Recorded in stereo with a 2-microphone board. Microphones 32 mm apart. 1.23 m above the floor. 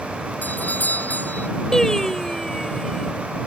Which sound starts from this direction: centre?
Singing, at 1.7 s.